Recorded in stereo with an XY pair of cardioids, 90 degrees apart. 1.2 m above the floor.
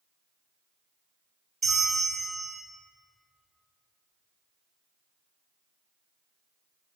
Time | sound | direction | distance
1.6 | a bell | 35° right | 0.6 m